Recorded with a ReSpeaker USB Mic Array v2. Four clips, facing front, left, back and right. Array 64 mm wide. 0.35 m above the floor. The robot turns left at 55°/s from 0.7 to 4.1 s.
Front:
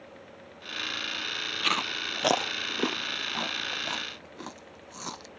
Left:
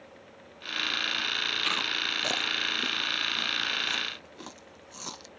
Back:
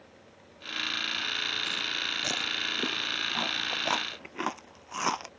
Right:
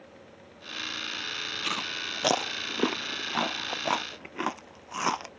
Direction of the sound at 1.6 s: 5° left.